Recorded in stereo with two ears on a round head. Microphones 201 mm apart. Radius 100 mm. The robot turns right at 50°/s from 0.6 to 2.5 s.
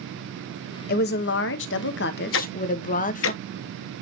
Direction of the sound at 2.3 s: 55° left (ahead or behind).